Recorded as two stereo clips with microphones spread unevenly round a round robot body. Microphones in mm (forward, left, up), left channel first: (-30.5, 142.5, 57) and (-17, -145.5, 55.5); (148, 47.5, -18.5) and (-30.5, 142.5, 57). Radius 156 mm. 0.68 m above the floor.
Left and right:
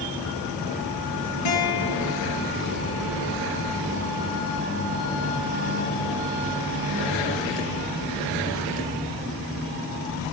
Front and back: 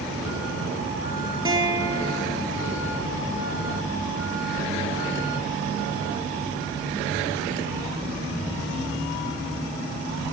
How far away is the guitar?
About 4 m.